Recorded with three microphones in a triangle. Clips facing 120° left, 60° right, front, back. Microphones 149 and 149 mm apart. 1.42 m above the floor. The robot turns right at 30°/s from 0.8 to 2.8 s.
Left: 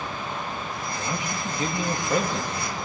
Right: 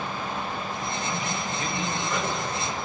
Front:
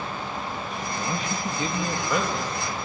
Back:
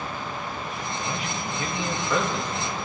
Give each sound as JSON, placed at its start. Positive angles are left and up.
{"t": 1.0, "sound": "a man speaking", "azimuth_deg": 45, "distance_m": 2.5}